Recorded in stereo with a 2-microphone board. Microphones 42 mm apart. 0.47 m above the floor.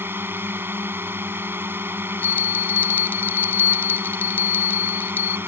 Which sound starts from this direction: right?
A drone, at 0.0 s.